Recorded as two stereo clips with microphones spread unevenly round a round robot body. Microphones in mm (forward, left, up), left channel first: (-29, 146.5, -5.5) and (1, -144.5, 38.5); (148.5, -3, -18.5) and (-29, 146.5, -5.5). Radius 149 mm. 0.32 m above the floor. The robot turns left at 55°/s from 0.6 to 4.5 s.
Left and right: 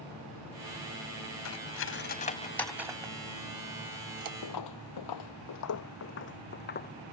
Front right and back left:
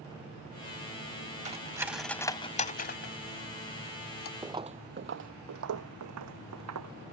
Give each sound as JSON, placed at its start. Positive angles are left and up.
{"t": 1.4, "sound": "cutlery clinking", "azimuth_deg": 80}
{"t": 4.4, "sound": "footsteps", "azimuth_deg": 65}